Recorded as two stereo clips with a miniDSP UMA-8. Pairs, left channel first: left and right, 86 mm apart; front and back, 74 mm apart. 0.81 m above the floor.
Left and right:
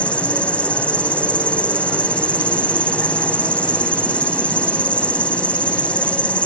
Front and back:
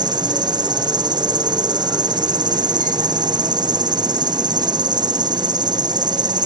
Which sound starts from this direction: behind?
An insect, at 0.0 s.